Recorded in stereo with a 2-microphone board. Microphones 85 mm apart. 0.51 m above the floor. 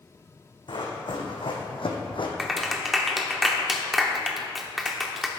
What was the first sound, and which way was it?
Running footsteps, 65° left (ahead or behind).